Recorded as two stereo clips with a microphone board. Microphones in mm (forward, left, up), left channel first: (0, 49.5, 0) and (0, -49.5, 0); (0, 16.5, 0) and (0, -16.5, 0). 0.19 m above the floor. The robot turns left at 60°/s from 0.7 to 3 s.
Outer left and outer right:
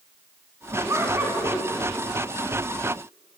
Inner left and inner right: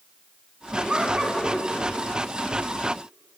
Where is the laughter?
120° right, 1.5 m; by 1.7 s 175° right, 1.5 m.